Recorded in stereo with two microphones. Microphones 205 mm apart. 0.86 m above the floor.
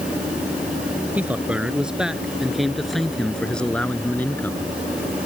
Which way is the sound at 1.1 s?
5° right (ahead or behind).